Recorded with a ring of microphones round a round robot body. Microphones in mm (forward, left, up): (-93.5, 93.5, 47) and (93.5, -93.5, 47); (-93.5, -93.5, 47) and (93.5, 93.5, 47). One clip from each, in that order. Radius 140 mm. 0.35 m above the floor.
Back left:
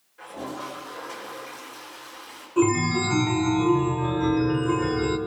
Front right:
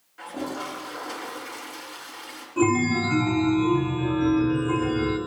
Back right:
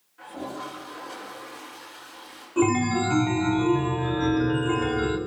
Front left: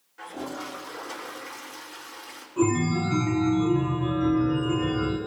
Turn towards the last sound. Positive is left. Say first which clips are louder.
# even, back right 2 dB
turn(degrees=-155)